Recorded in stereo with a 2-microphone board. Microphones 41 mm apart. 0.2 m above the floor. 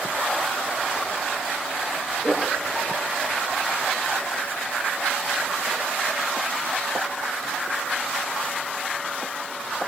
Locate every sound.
2.2 s laughter: centre (ahead or behind), 4.5 m